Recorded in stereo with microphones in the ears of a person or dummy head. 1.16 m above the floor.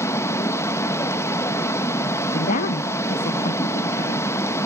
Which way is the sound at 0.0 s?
15° left (ahead or behind).